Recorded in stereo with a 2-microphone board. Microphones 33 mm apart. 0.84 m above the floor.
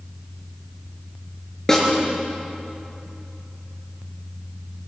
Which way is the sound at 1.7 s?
15° left (ahead or behind).